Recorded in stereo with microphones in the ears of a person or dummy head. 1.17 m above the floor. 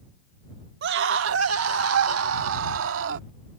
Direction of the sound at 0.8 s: 60° right (ahead or behind).